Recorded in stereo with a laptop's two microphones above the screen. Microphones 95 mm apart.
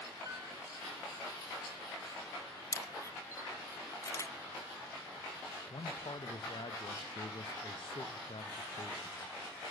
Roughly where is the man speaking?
Left.